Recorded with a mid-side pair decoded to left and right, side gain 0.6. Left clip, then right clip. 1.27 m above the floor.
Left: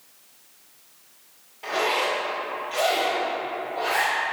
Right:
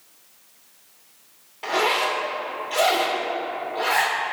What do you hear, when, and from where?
1.6 s a zipper: 40° right, 2.5 m